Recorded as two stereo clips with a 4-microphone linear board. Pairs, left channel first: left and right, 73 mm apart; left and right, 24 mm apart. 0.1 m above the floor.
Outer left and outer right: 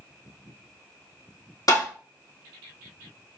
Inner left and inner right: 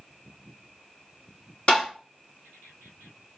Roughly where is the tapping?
Left.